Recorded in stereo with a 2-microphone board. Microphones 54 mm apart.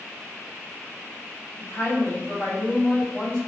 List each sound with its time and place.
1.6 s a woman speaking: 30° left (ahead or behind), 1.5 m